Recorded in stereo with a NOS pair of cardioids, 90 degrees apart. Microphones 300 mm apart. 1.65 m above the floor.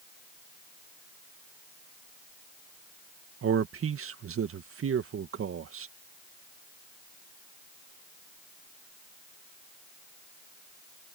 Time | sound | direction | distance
3.4 | a man speaking | 45° right | ?